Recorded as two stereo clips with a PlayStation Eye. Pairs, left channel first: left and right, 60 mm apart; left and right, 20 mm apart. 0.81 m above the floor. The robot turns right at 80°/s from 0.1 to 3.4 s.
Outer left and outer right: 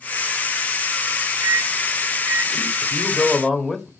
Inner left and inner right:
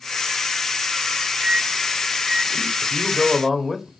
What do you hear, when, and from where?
1.4 s a microwave: 70° right (ahead or behind), 1.5 m; by 2.7 s 5° right (ahead or behind), 1.5 m
2.8 s a man speaking: 125° left, 1.3 m; by 3.9 s 175° left, 1.3 m